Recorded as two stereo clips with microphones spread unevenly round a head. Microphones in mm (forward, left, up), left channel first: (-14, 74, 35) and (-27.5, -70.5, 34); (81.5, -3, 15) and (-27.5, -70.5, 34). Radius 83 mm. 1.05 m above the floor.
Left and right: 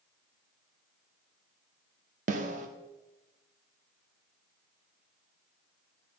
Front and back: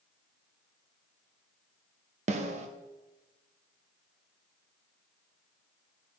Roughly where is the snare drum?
Behind right.